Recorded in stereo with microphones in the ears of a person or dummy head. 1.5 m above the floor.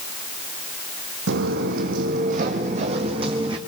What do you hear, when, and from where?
1.3 s footsteps: 60° right (ahead or behind), 3 m; by 3.6 s 25° right (ahead or behind), 4 m